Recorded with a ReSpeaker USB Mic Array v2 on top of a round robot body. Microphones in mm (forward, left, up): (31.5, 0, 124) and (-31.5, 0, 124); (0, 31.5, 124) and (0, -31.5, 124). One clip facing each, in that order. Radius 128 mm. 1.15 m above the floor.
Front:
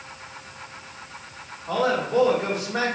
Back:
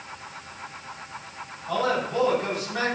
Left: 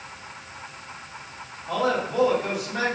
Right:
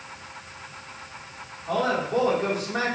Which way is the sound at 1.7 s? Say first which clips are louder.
Front 2 dB, even; 50° right.